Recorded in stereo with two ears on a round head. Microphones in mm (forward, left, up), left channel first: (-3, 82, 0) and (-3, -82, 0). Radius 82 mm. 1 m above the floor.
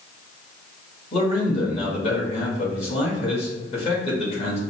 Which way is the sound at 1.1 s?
35° left (ahead or behind).